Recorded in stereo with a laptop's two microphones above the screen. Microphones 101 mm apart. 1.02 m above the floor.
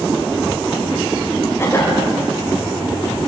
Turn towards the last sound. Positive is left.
turn(degrees=25)  # may be behind; listen again after turning